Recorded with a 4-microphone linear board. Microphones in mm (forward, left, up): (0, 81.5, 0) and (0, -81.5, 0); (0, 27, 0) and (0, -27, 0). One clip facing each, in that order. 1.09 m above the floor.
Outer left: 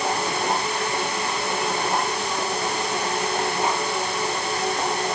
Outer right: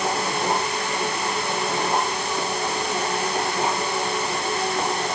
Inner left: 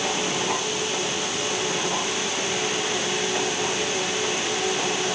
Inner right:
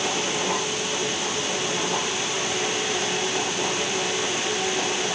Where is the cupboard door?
I don't hear a cupboard door.